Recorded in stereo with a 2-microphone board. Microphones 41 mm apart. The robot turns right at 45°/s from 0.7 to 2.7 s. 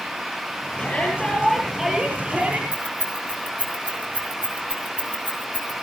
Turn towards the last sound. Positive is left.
turn(degrees=-50)  # may be behind; listen again after turning